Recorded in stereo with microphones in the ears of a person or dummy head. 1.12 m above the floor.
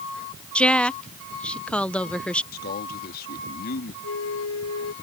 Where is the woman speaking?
5° left (ahead or behind).